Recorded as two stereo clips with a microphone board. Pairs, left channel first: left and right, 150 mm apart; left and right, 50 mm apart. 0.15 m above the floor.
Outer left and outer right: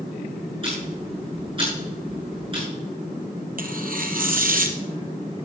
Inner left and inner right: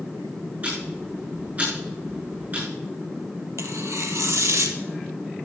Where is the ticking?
35° right (ahead or behind), 7.5 m.